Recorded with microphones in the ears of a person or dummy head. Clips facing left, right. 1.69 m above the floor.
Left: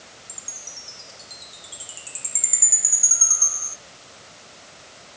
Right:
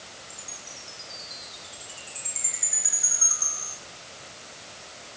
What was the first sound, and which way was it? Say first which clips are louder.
A chime: right 1 dB; 45° left (ahead or behind).